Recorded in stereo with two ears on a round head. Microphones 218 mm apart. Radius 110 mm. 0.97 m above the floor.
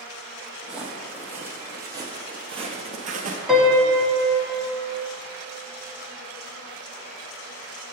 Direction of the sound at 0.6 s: 5° right (ahead or behind).